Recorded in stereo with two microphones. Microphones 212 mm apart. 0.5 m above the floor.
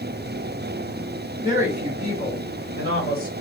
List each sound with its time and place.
1.4 s a woman speaking: 40° left (ahead or behind), 3.5 m; by 3.3 s 45° left (ahead or behind), 5 m